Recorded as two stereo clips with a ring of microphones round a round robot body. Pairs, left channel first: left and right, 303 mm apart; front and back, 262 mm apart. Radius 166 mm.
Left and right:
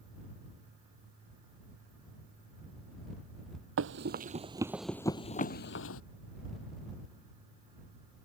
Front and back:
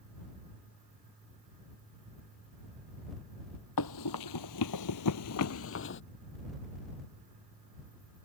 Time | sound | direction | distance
3.8 | running footsteps | 40° right | ?